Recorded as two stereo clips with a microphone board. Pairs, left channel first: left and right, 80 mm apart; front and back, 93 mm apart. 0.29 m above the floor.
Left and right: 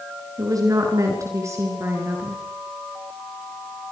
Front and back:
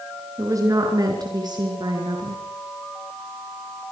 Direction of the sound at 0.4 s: 125° right.